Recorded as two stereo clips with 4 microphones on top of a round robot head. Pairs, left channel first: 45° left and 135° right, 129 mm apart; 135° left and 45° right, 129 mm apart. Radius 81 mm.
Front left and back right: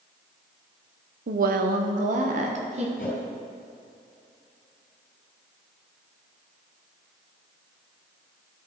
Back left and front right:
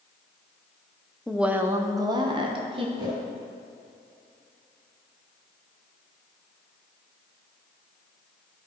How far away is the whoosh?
About 2.5 m.